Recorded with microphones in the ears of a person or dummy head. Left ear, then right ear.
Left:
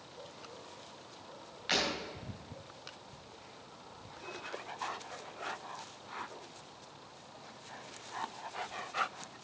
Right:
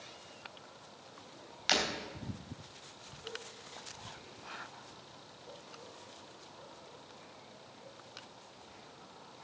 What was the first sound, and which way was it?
Breaking glass, 45° right (ahead or behind).